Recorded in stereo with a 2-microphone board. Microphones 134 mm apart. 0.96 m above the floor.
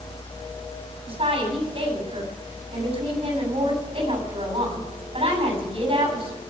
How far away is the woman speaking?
About 8 m.